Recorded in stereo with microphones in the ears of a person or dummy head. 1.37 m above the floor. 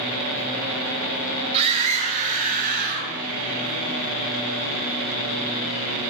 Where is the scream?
35° right (ahead or behind), 3 m; by 3.1 s 55° right (ahead or behind), 4 m.